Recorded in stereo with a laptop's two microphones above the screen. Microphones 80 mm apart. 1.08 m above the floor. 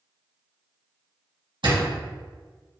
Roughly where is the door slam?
Right.